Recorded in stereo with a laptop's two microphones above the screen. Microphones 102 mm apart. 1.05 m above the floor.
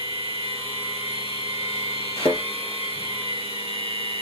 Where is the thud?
65° left (ahead or behind), 4 m.